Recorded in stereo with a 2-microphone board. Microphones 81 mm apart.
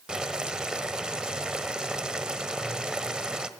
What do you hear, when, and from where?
0.1 s boiling: 10° right (ahead or behind), 1.2 m